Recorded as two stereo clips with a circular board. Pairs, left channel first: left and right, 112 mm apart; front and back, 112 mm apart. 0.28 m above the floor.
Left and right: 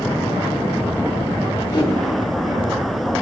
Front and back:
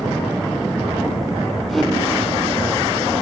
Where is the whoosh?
85° left, 1.1 m.